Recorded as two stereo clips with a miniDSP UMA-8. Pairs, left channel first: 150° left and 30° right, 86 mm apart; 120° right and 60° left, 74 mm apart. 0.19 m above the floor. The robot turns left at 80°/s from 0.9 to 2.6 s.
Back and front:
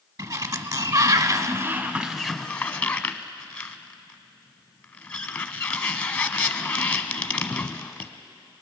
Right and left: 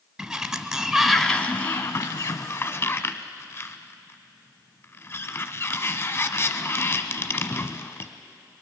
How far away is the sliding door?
About 1.0 m.